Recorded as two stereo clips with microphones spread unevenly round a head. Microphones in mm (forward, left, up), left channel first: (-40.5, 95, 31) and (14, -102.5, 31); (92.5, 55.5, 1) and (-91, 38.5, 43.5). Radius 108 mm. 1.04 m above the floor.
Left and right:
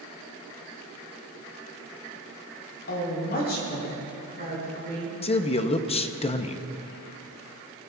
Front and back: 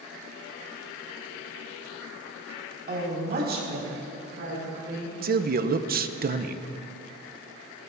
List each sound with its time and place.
2.9 s a woman speaking: 140° left, 3.5 m; by 5.1 s 155° left, 6 m
5.2 s a man speaking: 155° left, 0.7 m